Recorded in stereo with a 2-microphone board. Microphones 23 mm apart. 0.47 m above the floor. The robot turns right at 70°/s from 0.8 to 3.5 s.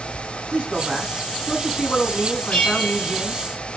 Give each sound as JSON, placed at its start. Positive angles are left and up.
{"t": 0.5, "sound": "a man speaking", "azimuth_deg": -40, "distance_m": 4.5}
{"t": 2.5, "sound": "a bell", "azimuth_deg": 115, "distance_m": 4.0}